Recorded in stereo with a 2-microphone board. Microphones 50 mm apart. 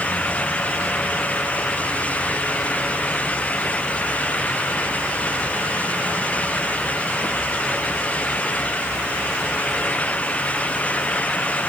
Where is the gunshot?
No gunshot in this recording.